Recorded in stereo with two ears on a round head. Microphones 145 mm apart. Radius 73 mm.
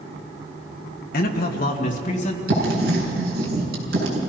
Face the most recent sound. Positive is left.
turn(degrees=-60)  # may be behind; listen again after turning